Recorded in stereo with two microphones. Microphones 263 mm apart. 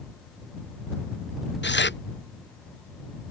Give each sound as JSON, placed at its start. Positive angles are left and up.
{"t": 1.6, "sound": "tearing paper", "side_deg": 45}